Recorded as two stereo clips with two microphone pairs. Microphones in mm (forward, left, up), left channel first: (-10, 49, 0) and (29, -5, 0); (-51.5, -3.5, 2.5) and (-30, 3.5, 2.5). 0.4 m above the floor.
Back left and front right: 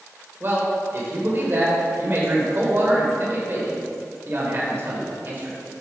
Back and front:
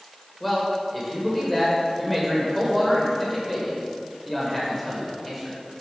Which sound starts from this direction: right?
A man speaking, at 0.4 s.